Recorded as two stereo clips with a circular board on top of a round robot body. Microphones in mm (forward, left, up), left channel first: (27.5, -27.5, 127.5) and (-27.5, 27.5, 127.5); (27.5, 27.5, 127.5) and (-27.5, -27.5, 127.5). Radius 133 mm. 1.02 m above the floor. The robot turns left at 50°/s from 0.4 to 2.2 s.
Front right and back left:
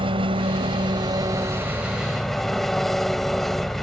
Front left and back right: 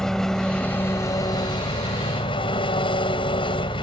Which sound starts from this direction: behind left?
An engine running, at 0.0 s.